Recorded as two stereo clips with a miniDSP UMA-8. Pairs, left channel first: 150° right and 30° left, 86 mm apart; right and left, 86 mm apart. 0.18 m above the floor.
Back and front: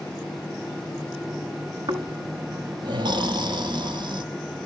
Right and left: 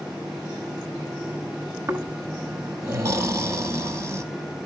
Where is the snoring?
35° left, 0.9 m.